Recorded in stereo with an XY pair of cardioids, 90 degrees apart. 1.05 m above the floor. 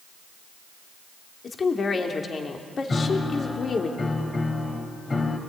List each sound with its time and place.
1.4 s a woman speaking: 45° left, 3 m
2.9 s a piano: 35° left, 4 m